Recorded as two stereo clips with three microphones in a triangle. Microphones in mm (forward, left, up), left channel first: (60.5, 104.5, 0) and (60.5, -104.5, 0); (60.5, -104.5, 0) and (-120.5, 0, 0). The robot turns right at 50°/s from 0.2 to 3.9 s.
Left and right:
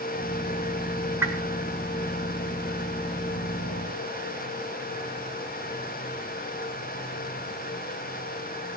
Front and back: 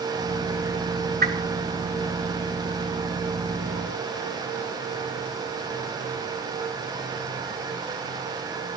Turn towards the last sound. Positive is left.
turn(degrees=-35)